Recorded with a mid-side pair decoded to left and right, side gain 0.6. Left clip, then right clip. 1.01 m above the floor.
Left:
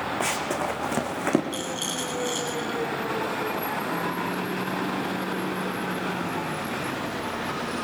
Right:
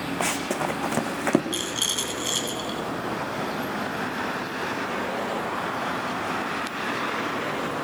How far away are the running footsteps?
About 4.5 m.